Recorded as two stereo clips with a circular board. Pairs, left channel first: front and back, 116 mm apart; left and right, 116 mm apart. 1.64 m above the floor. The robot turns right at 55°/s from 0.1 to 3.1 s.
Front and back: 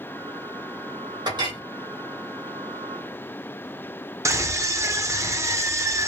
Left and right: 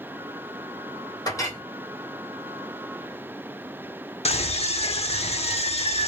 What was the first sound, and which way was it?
A clink, 140° left.